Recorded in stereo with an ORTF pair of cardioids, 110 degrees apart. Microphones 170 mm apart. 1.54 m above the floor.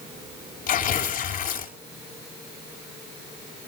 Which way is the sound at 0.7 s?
60° left.